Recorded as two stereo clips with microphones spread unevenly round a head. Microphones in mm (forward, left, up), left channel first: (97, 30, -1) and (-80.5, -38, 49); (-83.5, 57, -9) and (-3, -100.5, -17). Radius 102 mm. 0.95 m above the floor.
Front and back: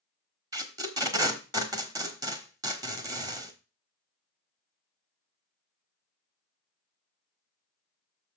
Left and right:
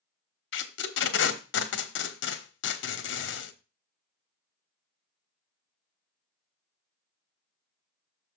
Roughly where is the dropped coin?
I don't hear a dropped coin.